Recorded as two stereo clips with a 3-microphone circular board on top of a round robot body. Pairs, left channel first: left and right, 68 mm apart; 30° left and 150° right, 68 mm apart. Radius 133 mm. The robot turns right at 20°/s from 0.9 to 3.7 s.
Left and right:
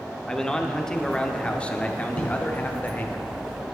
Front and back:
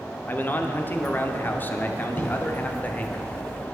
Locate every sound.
0.3 s a man speaking: 20° left, 1.0 m; by 3.2 s 65° left, 1.0 m
2.2 s writing: 60° left, 3 m; by 2.3 s 65° left, 3 m